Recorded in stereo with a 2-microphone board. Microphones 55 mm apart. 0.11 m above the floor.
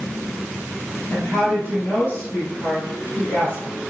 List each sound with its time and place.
1.1 s a woman speaking: 35° left (ahead or behind), 2.5 m